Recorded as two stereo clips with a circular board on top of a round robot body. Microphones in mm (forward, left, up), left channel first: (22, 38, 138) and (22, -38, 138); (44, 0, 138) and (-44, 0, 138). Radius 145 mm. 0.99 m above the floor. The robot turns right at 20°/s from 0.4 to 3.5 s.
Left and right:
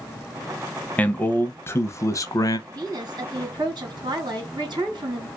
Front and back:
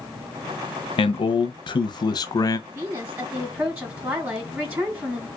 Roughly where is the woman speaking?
Behind right.